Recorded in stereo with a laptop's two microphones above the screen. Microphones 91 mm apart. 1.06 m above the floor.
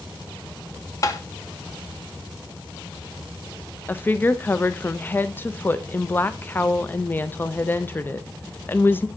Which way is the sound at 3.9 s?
20° left (ahead or behind).